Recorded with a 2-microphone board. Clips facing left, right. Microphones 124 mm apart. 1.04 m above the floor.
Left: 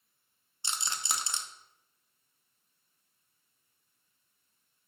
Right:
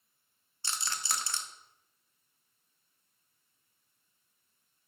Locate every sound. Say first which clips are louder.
0.6 s a rattle: left 1 dB; 20° left (ahead or behind), 0.6 m